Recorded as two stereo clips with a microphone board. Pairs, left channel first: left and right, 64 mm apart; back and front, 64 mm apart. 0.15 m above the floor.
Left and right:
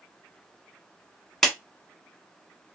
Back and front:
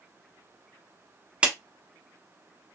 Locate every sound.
1.4 s a clap: 15° left, 0.8 m